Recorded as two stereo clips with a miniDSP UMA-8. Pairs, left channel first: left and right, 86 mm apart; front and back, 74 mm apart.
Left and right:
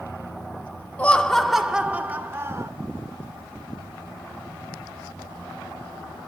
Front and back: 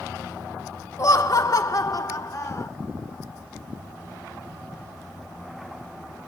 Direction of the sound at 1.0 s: 25° left.